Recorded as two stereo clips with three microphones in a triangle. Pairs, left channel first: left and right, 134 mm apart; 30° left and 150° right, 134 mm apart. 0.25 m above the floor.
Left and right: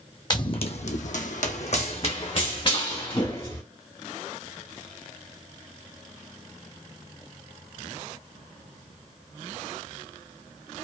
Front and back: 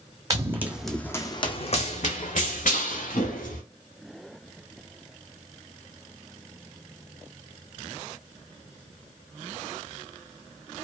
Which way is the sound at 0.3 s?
150° left.